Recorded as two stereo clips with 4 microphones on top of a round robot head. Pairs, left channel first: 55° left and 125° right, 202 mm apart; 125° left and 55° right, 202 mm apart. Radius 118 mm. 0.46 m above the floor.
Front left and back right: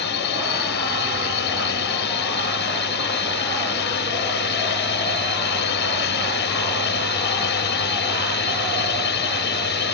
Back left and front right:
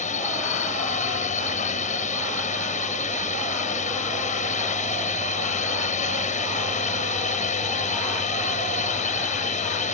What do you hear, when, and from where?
0.0 s a drone: 75° left